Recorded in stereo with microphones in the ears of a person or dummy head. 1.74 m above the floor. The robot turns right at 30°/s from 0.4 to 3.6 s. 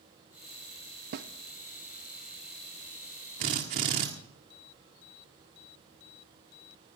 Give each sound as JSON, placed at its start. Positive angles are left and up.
{"t": 1.1, "sound": "a snare drum", "side_deg": -50, "distance_m": 0.8}
{"t": 3.4, "sound": "a drill", "side_deg": -35, "distance_m": 1.5}